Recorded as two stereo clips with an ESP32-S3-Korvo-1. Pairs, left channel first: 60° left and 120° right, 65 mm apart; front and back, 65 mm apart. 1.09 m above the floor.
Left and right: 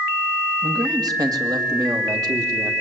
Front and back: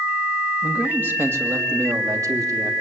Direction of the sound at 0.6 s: 110° right.